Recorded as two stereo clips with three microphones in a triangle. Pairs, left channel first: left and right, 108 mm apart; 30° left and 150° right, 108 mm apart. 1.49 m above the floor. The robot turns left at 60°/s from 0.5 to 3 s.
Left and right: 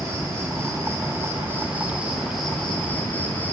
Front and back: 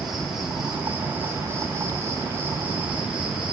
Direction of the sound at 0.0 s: 65° right.